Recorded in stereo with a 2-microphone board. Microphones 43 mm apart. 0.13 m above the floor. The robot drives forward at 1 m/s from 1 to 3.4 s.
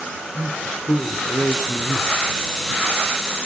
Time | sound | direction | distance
0.3 | a man speaking | 60° left (ahead or behind) | 3 m